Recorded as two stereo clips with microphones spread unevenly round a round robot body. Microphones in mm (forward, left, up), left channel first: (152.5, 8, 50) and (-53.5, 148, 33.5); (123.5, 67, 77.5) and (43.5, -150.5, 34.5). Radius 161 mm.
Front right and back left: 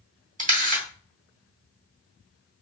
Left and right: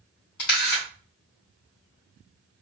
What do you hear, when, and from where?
0.4 s a camera shutter: 85° left, 2.5 m